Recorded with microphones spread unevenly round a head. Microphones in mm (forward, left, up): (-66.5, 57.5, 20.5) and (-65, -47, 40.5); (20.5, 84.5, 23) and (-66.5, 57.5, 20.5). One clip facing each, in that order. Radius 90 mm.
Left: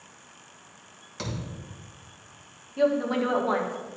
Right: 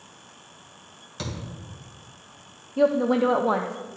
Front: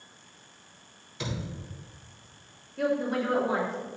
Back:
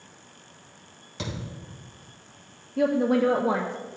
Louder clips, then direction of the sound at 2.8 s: Right 4 dB, back 6 dB; 150° right.